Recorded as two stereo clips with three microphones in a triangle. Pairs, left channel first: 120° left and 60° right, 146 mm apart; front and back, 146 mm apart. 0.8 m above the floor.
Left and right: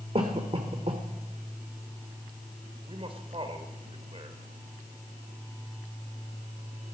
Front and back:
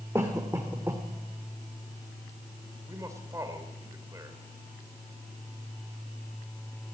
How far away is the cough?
About 2 m.